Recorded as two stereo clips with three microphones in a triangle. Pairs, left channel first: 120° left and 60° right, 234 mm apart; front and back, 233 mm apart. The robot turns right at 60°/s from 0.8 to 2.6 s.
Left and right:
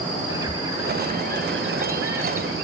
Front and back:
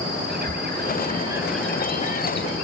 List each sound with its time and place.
0.3 s a bird: 140° right, 3 m; by 2.6 s 30° right, 3 m